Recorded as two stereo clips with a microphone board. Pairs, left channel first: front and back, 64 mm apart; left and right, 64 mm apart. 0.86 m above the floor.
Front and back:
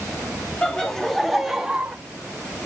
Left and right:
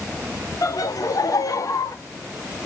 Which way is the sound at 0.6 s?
75° left.